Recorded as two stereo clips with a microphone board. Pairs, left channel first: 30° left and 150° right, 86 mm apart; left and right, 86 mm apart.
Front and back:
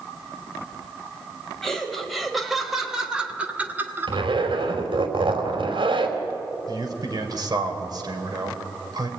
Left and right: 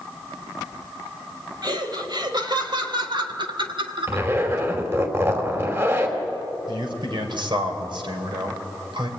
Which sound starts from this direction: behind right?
A zipper, at 4.1 s.